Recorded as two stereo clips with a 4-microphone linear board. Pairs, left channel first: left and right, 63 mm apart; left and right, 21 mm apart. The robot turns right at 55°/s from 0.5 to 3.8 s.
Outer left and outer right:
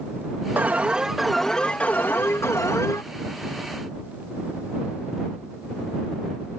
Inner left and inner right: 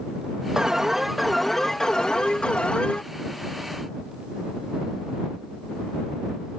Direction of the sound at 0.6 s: 40° right.